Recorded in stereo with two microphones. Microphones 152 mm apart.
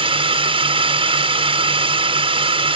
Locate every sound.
0.0 s a drone: 35° right (ahead or behind)